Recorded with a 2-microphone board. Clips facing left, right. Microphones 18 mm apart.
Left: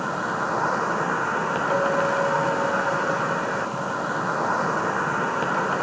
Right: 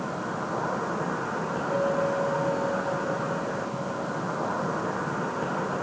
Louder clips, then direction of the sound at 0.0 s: Left 6 dB; 70° left (ahead or behind).